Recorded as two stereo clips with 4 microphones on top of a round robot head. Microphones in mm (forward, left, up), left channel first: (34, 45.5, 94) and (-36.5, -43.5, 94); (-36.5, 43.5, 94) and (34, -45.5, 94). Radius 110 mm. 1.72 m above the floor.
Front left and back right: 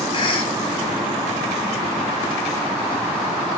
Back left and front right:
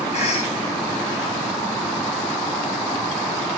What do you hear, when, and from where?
0.1 s a cough: 100° left, 4 m